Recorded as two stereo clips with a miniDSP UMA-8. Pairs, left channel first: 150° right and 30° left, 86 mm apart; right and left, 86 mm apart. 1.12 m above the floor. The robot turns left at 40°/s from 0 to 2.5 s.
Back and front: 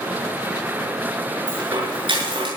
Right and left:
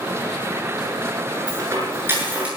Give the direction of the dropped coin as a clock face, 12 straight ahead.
10 o'clock.